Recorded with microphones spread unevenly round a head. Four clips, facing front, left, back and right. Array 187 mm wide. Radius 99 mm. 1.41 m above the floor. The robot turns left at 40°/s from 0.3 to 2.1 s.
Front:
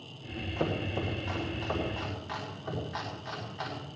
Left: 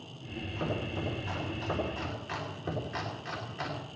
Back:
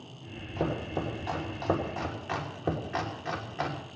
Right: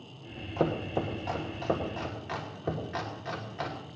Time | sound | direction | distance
0.6 | chopping | 95° right | 3.5 m